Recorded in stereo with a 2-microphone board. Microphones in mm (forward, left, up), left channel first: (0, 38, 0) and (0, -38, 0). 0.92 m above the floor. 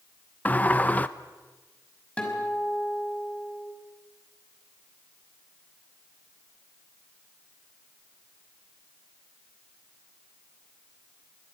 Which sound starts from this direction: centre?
A guitar, at 2.2 s.